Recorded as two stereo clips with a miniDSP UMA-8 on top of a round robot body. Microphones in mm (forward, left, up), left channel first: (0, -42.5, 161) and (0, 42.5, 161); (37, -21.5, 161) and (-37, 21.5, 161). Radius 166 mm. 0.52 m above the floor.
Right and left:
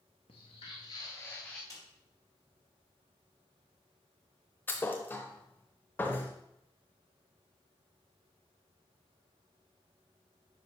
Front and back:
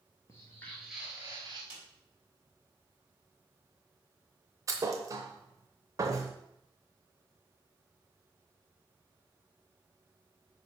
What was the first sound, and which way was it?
Footsteps, 85° right.